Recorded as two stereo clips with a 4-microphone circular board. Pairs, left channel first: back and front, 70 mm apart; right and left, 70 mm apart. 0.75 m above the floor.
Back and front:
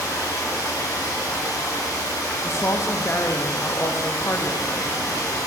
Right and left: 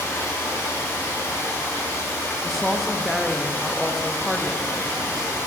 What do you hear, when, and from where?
0.0 s running water: 145° right, 1.8 m
2.4 s a woman speaking: 175° right, 0.5 m